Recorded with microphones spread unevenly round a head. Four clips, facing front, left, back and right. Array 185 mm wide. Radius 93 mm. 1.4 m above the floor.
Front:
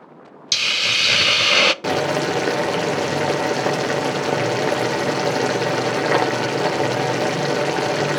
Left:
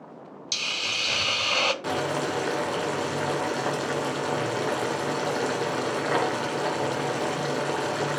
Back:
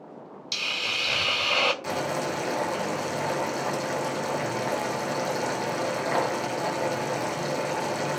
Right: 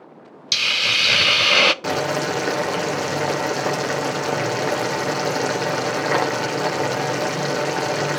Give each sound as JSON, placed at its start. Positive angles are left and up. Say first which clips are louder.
{"t": 0.5, "sound": "a hiss", "louder": "right 9 dB, front 8 dB", "azimuth_deg": -45, "distance_m": 0.5}
{"t": 1.8, "sound": "boiling", "louder": "right 5 dB, front 8 dB", "azimuth_deg": -20, "distance_m": 1.0}